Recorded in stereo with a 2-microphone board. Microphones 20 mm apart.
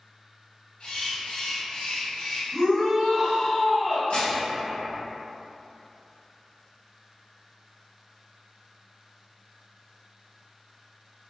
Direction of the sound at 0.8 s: 50° left (ahead or behind).